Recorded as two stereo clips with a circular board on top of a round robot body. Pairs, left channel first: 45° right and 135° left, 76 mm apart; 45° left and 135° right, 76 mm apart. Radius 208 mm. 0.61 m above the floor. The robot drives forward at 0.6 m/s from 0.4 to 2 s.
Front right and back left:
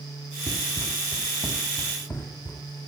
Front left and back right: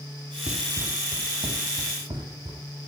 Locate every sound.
0.5 s running footsteps: 90° right, 0.7 m; by 2.6 s 95° right, 2 m